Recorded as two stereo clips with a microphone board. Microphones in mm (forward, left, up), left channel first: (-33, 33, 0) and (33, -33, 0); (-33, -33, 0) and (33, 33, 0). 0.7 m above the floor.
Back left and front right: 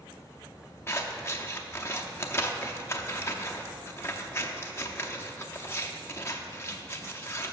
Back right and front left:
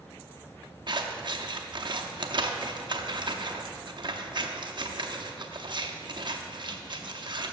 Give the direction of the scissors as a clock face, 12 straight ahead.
10 o'clock.